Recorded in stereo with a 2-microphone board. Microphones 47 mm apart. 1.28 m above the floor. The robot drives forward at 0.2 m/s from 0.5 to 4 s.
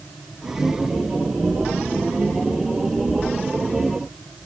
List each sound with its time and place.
Only background noise.